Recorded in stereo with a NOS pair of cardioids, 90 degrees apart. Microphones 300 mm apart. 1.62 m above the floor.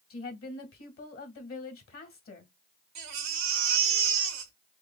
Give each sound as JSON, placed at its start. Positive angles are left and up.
{"t": 0.1, "sound": "a woman speaking", "azimuth_deg": 45, "distance_m": 1.7}
{"t": 3.0, "sound": "a baby crying", "azimuth_deg": -65, "distance_m": 1.5}